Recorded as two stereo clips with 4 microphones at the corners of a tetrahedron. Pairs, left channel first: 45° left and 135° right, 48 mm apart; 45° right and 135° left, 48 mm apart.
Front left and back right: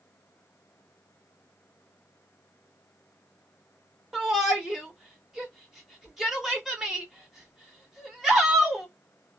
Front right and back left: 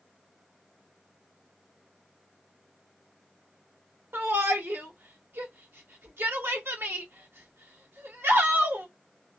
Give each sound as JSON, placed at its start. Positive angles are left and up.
{"t": 4.1, "sound": "a shout", "azimuth_deg": 140, "distance_m": 1.4}